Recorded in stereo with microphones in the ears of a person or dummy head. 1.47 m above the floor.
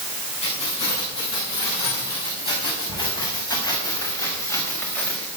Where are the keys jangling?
35° left (ahead or behind), 10 m; by 5.3 s 10° left (ahead or behind), 4.5 m.